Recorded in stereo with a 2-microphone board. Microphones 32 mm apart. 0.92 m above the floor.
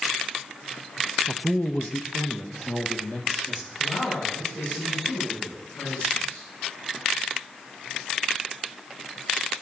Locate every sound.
1.3 s a man speaking: 30° left (ahead or behind), 0.6 m; by 3.7 s 75° left (ahead or behind), 2 m
3.8 s a man speaking: 55° left (ahead or behind), 6 m